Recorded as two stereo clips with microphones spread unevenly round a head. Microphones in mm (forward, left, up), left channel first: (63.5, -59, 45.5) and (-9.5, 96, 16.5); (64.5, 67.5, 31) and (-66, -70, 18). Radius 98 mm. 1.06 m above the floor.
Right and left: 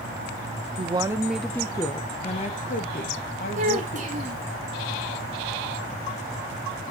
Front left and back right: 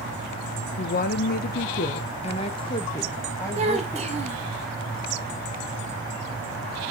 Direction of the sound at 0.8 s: 75° left.